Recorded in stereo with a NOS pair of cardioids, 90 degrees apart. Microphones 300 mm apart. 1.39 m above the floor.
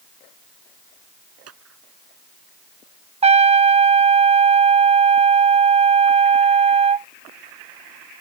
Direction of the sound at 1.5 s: 55° right.